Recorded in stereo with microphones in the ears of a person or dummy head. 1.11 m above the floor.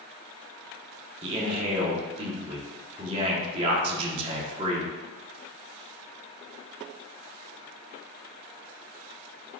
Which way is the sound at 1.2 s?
25° right (ahead or behind).